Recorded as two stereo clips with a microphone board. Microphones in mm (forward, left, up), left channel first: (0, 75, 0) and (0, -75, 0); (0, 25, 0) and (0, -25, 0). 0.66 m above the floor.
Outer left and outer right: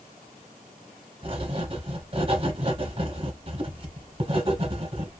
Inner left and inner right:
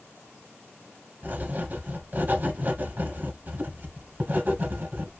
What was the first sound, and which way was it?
Writing, 35° right (ahead or behind).